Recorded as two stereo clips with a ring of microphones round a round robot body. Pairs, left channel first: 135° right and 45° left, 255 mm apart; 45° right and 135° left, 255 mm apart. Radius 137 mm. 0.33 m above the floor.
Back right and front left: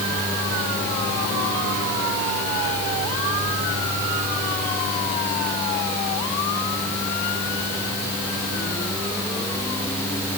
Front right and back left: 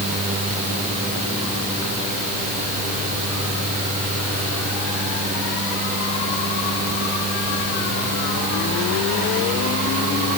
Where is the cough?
I don't hear a cough.